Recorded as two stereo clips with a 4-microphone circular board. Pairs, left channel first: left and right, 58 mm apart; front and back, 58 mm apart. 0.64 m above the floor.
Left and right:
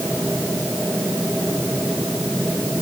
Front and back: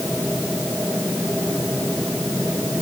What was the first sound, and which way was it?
Only background noise.